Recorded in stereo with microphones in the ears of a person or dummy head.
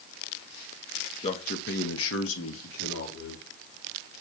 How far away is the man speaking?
About 1.2 m.